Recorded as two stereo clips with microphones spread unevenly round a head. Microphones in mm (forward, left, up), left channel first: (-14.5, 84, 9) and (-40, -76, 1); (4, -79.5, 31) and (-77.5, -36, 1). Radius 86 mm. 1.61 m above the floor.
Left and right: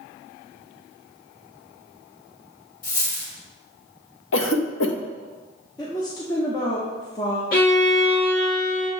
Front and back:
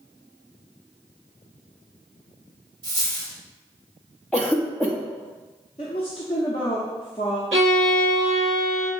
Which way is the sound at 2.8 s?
95° left.